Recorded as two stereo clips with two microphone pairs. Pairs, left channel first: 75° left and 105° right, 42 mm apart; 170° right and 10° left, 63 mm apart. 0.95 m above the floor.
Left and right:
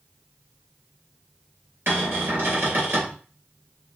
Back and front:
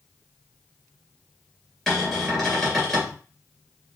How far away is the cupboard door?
About 2.5 m.